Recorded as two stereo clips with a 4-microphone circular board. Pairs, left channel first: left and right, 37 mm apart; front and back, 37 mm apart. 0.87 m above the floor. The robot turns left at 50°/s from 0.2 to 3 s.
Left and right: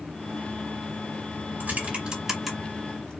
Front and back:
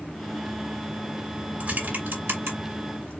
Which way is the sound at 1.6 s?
130° right.